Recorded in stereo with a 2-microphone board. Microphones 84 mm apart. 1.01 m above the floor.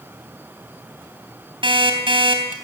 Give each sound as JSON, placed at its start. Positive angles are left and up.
{"t": 1.6, "sound": "an alarm clock", "side_deg": -70, "distance_m": 3.0}